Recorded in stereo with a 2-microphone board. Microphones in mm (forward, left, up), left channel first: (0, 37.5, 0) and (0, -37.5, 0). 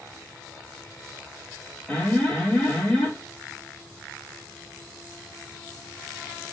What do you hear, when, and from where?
1.9 s an alarm: 15° left (ahead or behind), 1.4 m